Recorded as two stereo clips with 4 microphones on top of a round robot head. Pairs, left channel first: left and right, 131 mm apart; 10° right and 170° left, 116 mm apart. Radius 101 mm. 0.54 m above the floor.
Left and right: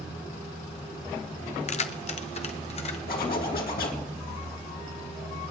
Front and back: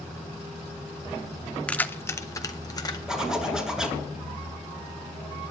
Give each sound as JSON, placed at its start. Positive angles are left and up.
{"t": 1.7, "sound": "keys jangling", "azimuth_deg": 70, "distance_m": 0.7}
{"t": 3.1, "sound": "a zipper", "azimuth_deg": 85, "distance_m": 2.5}